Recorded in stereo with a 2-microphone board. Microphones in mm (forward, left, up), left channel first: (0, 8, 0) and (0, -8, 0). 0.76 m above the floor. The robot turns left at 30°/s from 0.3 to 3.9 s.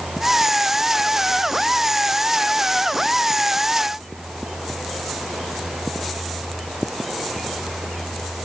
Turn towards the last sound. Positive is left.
No sound to turn to.